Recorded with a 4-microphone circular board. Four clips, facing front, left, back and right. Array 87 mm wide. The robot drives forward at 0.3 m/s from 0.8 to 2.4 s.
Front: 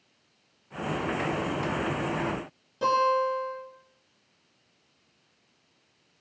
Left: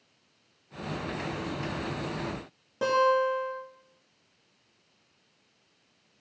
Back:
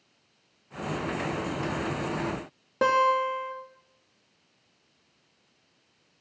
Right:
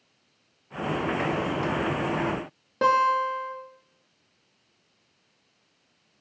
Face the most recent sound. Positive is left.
turn(degrees=-150)